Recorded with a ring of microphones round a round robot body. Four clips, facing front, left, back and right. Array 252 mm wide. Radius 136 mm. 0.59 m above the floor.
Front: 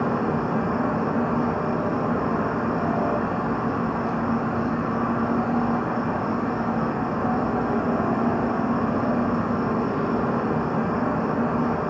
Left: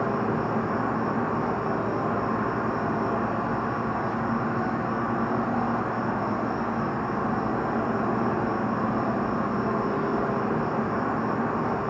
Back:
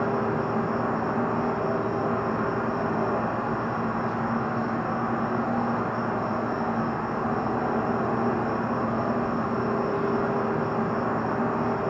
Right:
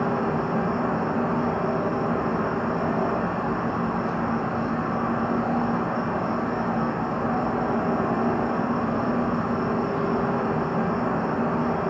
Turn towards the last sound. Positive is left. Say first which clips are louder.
# right 1 dB, front 2 dB
turn(degrees=-30)